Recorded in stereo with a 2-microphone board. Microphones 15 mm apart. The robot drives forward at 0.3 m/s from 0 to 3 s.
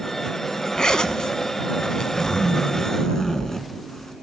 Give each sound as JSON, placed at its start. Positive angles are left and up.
{"t": 0.8, "sound": "a zipper", "side_deg": 55, "distance_m": 0.6}